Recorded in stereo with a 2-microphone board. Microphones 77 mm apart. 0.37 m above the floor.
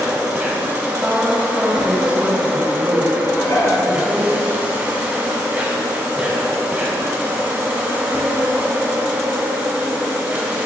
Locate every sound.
0.0 s an insect: 20° right (ahead or behind), 1.9 m
1.0 s a woman speaking: 15° right (ahead or behind), 2 m
3.2 s dishes clattering: 45° left (ahead or behind), 2 m